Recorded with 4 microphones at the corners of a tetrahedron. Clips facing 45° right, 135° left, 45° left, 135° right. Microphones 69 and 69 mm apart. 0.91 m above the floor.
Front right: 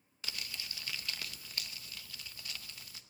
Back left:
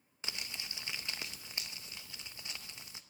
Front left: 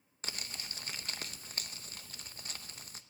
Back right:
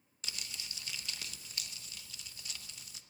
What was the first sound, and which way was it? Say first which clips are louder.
Crumpling: even, front left 2 dB; 75° left.